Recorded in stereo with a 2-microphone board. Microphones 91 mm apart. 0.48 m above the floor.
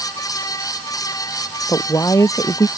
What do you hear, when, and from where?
1.7 s a woman speaking: 40° left (ahead or behind)